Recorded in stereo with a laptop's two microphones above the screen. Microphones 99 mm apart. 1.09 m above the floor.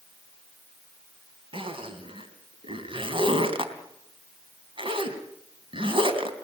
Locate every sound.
1.5 s a zipper: 60° right (ahead or behind), 3.5 m